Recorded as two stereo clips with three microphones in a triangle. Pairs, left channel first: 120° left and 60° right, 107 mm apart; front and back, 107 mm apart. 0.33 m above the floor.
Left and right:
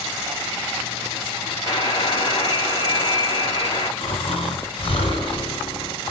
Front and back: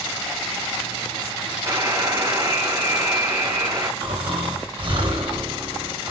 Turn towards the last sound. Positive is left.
turn(degrees=145)